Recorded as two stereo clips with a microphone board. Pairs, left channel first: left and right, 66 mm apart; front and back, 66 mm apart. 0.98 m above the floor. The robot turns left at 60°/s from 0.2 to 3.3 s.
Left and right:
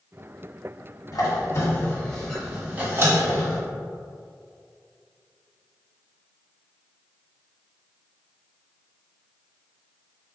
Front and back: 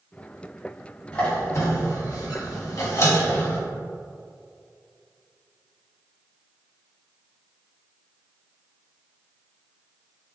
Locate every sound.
1.1 s a squeak: 80° left, 1.6 m; by 3.6 s 50° right, 1.6 m